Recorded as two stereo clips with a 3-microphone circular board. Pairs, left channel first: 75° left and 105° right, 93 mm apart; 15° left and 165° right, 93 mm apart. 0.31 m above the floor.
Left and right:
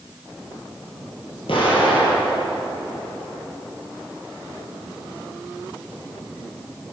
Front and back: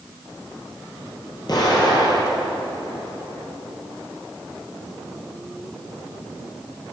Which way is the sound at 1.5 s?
60° left.